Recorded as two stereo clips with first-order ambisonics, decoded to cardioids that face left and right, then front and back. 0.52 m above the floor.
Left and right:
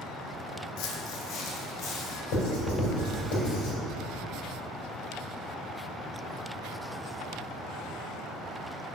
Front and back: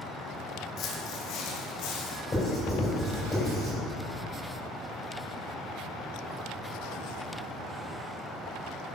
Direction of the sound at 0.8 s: 55° left.